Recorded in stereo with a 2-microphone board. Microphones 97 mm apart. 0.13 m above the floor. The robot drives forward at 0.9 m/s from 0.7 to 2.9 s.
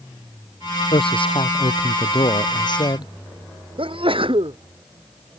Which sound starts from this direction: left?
A man speaking, at 0.9 s.